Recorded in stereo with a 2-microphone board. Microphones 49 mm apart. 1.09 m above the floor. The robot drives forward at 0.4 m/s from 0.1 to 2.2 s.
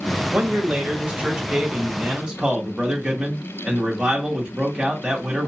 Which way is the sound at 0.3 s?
30° right (ahead or behind).